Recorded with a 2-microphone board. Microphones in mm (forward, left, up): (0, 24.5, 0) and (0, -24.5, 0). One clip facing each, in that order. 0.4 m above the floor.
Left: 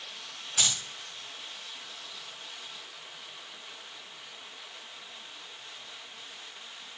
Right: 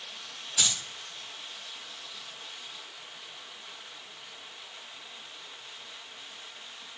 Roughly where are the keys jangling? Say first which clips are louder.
Even; left.